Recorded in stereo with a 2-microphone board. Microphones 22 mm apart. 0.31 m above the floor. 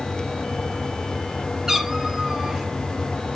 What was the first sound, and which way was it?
A cat meowing, 20° right (ahead or behind).